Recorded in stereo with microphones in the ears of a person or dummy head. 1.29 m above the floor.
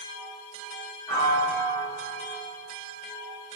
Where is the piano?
30° left (ahead or behind), 1.8 m.